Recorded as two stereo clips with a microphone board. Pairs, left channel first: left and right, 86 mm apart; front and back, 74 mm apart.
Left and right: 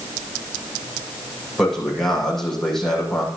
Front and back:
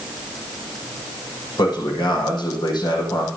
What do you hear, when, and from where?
1.6 s a man speaking: 5° left, 7.5 m